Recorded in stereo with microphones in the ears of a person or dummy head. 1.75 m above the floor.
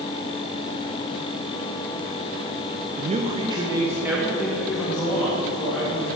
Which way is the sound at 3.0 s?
40° right (ahead or behind).